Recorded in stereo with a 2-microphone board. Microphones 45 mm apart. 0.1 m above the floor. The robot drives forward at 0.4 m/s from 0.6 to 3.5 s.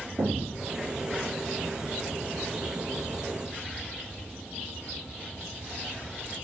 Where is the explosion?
60° right (ahead or behind), 1.1 m.